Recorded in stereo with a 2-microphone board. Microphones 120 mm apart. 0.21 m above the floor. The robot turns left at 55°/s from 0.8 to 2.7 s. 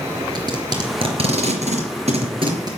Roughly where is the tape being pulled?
Right.